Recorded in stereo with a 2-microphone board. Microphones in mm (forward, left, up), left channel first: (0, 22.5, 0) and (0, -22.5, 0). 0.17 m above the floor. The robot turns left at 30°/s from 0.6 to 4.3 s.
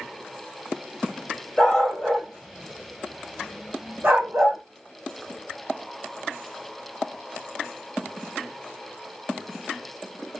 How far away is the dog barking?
About 2 m.